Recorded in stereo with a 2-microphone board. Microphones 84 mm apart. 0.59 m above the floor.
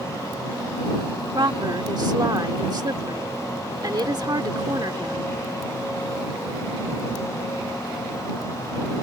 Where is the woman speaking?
50° right (ahead or behind).